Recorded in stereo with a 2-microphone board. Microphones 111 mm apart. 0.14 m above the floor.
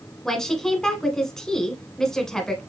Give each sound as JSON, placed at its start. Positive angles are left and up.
{"t": 0.2, "sound": "a woman speaking", "side_deg": 5, "distance_m": 1.4}